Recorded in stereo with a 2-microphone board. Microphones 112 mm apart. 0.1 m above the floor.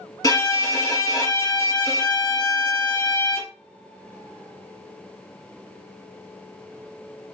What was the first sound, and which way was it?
A violin, 35° left (ahead or behind).